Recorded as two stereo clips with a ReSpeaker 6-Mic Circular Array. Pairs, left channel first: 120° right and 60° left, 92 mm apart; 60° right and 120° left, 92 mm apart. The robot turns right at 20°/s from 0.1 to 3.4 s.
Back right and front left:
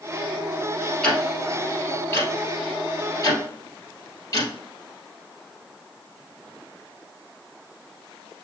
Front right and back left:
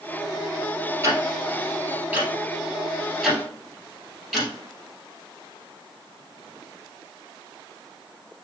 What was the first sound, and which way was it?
Ticking, 160° left.